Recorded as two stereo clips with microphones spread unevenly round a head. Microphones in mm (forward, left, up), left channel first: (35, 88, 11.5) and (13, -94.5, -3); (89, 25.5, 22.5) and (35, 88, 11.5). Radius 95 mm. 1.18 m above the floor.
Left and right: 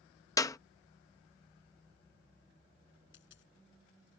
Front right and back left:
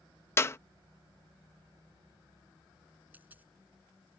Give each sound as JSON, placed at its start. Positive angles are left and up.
{"t": 0.4, "sound": "a clap", "azimuth_deg": 10}
{"t": 3.1, "sound": "a dropped coin", "azimuth_deg": 60}